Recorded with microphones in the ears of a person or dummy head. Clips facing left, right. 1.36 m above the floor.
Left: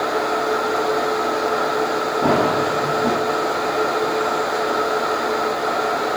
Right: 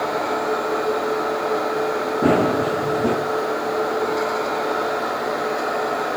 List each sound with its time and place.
2.2 s running footsteps: 30° right (ahead or behind), 3.5 m